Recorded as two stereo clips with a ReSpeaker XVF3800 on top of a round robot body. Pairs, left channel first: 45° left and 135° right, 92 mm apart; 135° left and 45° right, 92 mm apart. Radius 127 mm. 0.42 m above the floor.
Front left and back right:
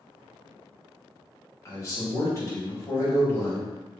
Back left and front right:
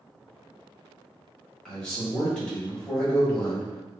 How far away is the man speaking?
About 1.6 m.